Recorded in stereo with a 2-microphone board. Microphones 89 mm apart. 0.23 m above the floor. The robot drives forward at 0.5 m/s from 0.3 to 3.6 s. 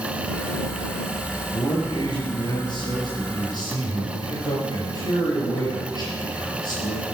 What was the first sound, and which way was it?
A man speaking, 60° left (ahead or behind).